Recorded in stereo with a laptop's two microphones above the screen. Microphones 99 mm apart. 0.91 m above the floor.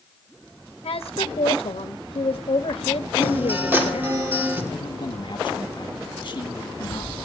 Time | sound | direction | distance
0.8 | a woman speaking | 70° left (ahead or behind) | 1.0 m
3.2 | a guitar | 20° right (ahead or behind) | 2.5 m
4.7 | a man speaking | 55° left (ahead or behind) | 1.5 m